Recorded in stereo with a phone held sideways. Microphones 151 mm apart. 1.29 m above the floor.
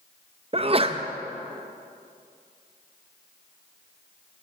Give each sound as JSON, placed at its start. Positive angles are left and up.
{"t": 0.5, "sound": "a sneeze", "side_deg": -40, "distance_m": 0.5}